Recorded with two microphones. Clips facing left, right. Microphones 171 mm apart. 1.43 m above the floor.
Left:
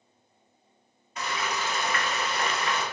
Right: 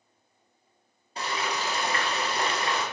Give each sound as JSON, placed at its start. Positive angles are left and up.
{"t": 1.2, "sound": "frying", "side_deg": -30, "distance_m": 1.2}